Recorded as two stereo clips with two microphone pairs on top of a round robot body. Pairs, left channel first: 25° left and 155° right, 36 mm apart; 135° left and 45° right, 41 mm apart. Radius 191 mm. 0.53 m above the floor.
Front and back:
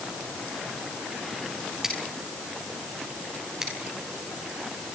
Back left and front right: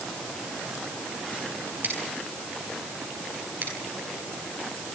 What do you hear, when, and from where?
1.8 s scissors: 80° right, 9 m